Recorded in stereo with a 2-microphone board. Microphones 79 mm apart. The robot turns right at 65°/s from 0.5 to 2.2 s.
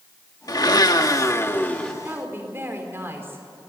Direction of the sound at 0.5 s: 80° left.